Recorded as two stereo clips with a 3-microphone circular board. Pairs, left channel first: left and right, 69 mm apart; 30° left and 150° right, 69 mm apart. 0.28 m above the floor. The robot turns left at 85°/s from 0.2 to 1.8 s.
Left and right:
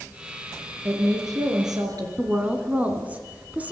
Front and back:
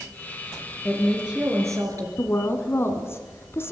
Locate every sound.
0.8 s a woman speaking: 35° right, 4.5 m; by 2.1 s 115° right, 4.5 m
2.2 s a woman speaking: 25° right, 2.5 m